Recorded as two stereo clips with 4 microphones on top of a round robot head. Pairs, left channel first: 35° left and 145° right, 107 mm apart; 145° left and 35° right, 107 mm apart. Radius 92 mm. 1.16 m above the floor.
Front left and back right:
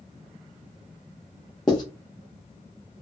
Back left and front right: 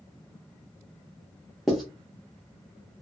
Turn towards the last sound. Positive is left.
turn(degrees=55)